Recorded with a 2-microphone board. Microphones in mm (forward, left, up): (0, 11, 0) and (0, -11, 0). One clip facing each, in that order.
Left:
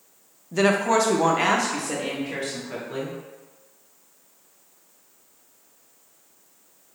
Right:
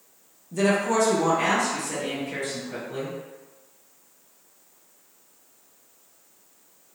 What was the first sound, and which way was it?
A woman speaking, 40° left (ahead or behind).